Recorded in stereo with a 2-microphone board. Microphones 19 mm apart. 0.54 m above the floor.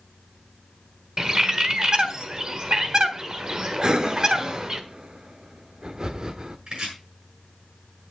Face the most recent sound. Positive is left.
turn(degrees=-60)  # may be behind; listen again after turning